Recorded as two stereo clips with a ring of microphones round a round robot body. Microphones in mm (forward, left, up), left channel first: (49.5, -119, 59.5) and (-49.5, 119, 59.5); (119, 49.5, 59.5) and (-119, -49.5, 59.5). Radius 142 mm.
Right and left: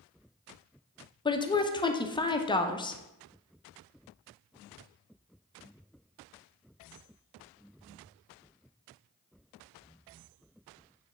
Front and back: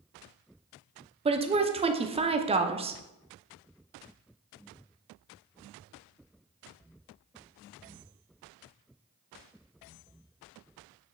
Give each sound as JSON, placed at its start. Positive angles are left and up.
{"t": 1.2, "sound": "a woman speaking", "azimuth_deg": -120, "distance_m": 0.7}